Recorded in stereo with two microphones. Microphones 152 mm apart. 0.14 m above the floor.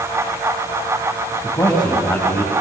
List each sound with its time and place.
1.4 s a man speaking: 30° left (ahead or behind), 7 m